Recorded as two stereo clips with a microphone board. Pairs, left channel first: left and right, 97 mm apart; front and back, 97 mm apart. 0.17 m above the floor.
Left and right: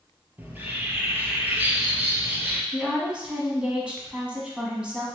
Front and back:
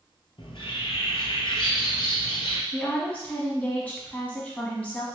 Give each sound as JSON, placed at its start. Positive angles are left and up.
{"t": 0.4, "sound": "a bird", "azimuth_deg": -20, "distance_m": 0.7}
{"t": 2.7, "sound": "a woman speaking", "azimuth_deg": -35, "distance_m": 1.0}